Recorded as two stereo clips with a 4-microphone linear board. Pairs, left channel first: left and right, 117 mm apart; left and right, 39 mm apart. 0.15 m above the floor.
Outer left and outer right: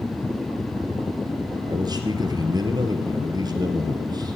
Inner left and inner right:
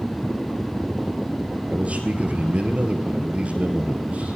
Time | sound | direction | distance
1.7 | a man speaking | 40° right (ahead or behind) | 2.5 m